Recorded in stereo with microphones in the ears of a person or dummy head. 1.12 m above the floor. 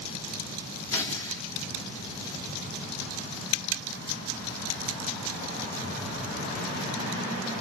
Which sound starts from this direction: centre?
Tearing paper, at 0.9 s.